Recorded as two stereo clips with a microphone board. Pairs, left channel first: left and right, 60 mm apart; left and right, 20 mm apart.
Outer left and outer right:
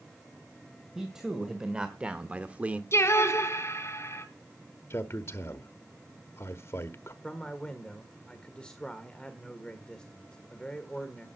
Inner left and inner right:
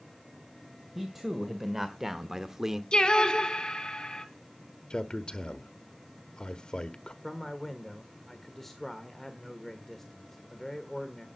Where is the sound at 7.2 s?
15° left (ahead or behind), 1.6 m.